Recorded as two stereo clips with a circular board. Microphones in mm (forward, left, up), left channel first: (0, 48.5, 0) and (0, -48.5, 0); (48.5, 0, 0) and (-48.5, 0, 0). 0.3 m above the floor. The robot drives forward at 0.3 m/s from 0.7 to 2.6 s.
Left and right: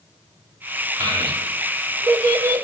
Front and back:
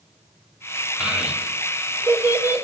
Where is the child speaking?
100° right, 1.3 m; by 2.6 s 125° right, 1.4 m.